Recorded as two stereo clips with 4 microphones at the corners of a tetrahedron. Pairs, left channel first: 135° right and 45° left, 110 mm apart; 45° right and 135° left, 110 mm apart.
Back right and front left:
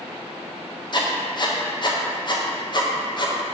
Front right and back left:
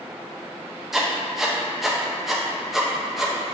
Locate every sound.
0.9 s writing: 140° right, 0.5 m